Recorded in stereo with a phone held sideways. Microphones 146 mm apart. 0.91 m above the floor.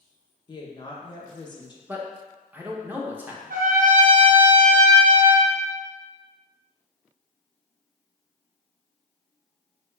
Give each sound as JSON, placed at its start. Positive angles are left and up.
{"t": 0.5, "sound": "a woman speaking", "side_deg": 30, "distance_m": 0.5}
{"t": 1.9, "sound": "a man speaking", "side_deg": -15, "distance_m": 0.6}
{"t": 3.5, "sound": "a trumpet", "side_deg": -70, "distance_m": 0.7}